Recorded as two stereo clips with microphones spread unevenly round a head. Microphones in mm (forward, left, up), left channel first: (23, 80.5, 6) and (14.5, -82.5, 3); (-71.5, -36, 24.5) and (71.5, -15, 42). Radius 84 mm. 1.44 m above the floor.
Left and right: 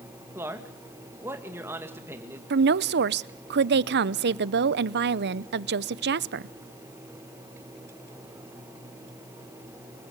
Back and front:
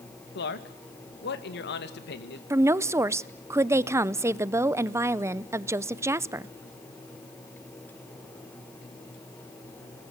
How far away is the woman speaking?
About 0.7 m.